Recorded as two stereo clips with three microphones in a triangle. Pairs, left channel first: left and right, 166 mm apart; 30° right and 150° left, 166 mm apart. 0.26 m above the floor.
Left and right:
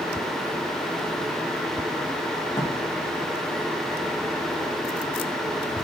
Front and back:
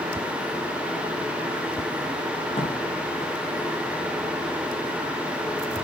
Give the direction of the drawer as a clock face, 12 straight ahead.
11 o'clock.